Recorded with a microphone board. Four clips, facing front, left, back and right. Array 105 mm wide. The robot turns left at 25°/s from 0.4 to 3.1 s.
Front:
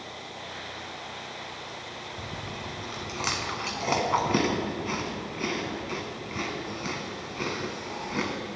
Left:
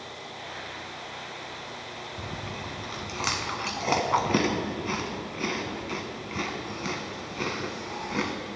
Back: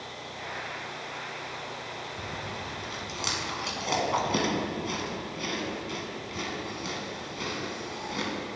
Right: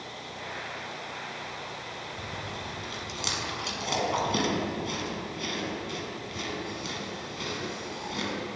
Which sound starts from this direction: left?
Chewing, at 2.2 s.